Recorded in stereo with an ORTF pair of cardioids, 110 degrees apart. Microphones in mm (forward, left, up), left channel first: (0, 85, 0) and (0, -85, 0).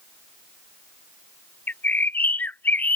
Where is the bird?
10° left.